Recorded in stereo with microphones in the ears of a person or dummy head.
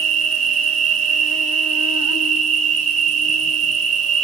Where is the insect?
40° right (ahead or behind), 2.5 m.